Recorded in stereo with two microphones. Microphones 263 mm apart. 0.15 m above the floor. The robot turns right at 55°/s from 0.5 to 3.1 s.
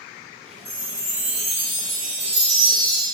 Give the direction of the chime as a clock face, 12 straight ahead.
4 o'clock.